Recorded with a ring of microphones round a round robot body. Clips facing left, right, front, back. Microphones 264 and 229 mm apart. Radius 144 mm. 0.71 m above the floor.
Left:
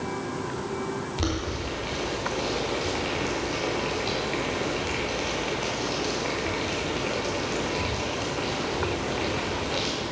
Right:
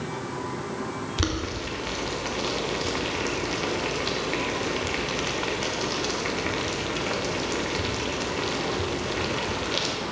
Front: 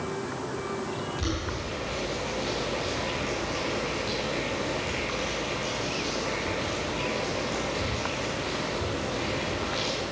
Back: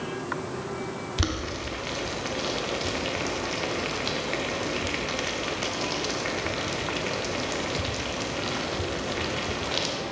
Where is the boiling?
155° right, 1.1 m.